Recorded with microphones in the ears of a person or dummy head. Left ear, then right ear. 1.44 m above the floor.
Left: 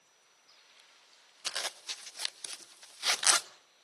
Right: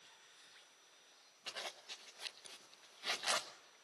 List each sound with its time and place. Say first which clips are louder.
1.5 s a zipper: left 10 dB; 70° left (ahead or behind), 1.1 m